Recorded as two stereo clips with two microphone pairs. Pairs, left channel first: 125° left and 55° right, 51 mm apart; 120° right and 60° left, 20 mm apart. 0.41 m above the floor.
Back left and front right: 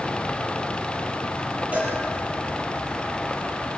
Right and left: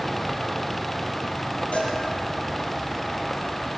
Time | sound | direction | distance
1.7 | a cowbell | 115° right | 9 m